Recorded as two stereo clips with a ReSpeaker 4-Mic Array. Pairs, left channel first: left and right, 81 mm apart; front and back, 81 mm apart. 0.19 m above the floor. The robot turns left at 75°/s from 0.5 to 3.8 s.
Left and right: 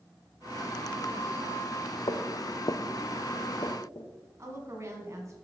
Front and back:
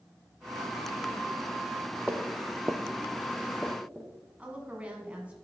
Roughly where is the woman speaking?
Behind right.